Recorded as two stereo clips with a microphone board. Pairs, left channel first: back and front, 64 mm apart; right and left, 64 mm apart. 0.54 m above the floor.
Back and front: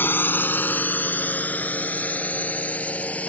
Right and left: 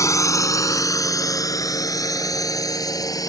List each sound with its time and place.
0.0 s a drone: 125° right; by 3.3 s 110° right